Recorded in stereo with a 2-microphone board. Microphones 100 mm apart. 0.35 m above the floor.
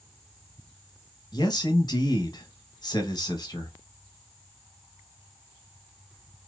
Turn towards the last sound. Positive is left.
turn(degrees=40)  # may be behind; listen again after turning